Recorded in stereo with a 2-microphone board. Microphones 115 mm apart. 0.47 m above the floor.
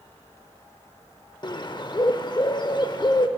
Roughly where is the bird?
Left.